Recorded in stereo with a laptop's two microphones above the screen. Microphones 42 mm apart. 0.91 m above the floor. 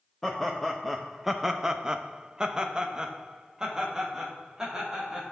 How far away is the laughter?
About 0.9 m.